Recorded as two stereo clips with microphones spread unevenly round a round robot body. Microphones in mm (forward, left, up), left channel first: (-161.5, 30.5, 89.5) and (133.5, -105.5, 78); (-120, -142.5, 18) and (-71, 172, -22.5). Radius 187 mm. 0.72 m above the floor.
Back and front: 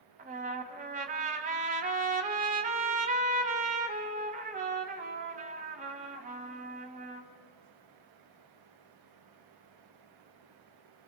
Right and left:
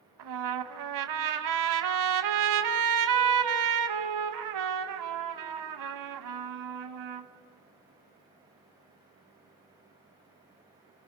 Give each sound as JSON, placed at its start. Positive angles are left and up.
{"t": 0.2, "sound": "a trumpet", "azimuth_deg": 45, "distance_m": 0.9}